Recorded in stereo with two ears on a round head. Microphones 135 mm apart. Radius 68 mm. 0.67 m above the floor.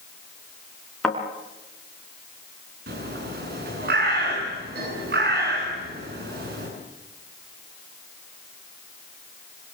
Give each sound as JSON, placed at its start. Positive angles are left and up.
{"t": 1.0, "sound": "a thud", "side_deg": 5, "distance_m": 4.5}
{"t": 2.9, "sound": "a bird", "side_deg": -75, "distance_m": 8.5}